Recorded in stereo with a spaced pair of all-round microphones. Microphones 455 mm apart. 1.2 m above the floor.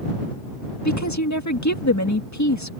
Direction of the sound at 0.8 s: 40° left (ahead or behind).